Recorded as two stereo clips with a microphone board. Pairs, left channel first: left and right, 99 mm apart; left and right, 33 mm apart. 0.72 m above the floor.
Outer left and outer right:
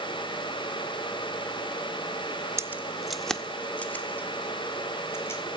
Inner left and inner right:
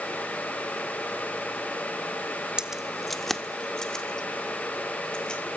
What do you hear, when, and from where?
2.6 s keys jangling: 30° right (ahead or behind), 0.6 m; by 5.4 s 25° left (ahead or behind), 3 m